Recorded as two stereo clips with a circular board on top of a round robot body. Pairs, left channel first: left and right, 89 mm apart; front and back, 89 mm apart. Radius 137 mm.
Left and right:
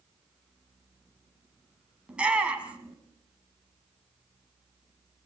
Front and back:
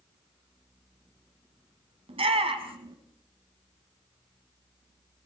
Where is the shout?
170° right, 5 m.